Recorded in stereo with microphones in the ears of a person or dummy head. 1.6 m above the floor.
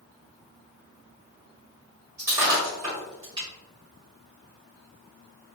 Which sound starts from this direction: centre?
Breaking glass, at 2.2 s.